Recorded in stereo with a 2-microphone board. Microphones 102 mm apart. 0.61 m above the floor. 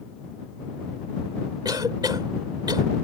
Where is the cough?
45° right (ahead or behind).